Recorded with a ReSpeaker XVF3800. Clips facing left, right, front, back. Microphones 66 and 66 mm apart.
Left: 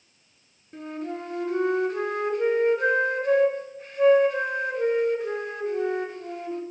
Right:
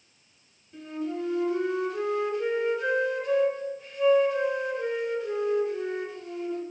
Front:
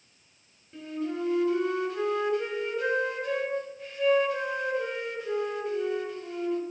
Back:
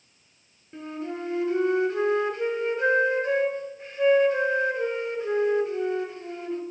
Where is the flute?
120° left, 0.5 m.